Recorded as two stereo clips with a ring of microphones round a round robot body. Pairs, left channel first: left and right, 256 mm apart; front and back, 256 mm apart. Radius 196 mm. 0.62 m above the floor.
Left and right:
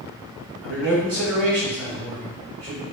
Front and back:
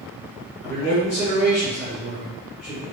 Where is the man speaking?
80° right, 1.8 m.